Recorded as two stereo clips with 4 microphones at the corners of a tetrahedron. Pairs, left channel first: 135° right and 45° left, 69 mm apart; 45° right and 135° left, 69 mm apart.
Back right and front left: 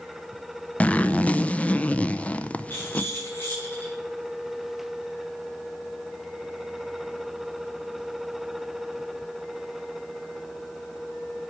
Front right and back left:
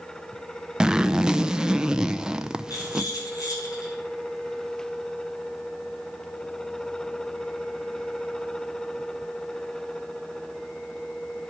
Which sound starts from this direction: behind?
A zipper, at 0.8 s.